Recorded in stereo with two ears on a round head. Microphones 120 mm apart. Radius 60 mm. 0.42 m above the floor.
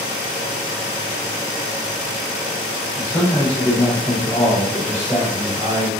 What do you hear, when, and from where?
3.0 s a man speaking: 20° left (ahead or behind), 1.8 m; by 5.9 s 40° right (ahead or behind), 1.8 m